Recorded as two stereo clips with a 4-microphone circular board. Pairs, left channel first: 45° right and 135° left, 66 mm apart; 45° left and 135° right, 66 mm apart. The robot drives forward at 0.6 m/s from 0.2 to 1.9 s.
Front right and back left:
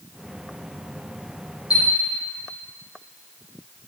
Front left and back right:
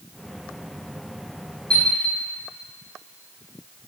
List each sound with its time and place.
1.7 s a chime: 30° right, 4 m